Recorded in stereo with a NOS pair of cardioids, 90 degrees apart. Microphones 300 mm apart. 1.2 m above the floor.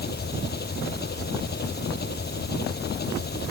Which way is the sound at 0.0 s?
30° left.